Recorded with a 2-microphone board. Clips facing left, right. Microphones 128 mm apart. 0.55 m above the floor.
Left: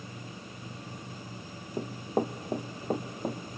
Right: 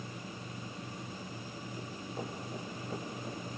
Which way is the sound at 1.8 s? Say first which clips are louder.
Left 13 dB; 60° left (ahead or behind).